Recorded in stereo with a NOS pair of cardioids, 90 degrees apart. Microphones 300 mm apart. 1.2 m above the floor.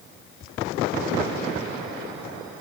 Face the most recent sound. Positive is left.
No sound to turn to.